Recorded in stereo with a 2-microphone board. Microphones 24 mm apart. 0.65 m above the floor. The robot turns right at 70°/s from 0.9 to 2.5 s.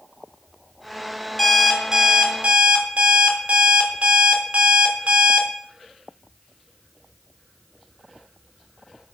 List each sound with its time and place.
1.4 s an alarm clock: 175° left, 0.6 m; by 5.5 s 110° right, 0.6 m